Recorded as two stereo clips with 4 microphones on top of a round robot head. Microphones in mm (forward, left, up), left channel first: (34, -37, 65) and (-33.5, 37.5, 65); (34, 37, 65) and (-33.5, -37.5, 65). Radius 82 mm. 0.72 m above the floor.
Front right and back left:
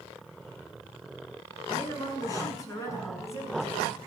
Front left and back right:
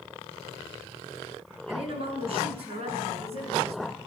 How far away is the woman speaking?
About 8.5 m.